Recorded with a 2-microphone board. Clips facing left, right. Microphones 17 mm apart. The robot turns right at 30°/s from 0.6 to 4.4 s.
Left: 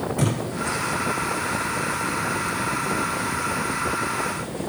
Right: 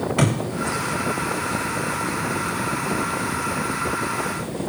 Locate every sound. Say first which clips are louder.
0.2 s a thud: right 4 dB; 55° right (ahead or behind), 6 m